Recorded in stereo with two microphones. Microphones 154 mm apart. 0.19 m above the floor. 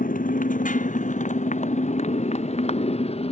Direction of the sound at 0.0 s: 60° left (ahead or behind).